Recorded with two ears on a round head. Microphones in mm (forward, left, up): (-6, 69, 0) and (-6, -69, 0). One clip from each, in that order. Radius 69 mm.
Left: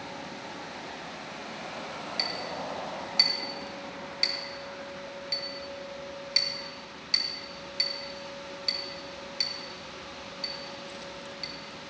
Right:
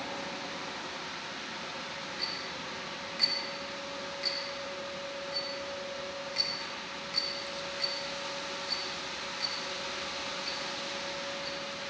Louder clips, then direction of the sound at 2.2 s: Left 6 dB; 75° left (ahead or behind).